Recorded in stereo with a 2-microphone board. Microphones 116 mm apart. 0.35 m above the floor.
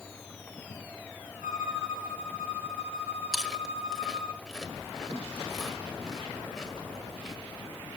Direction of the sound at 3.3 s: 5° left (ahead or behind).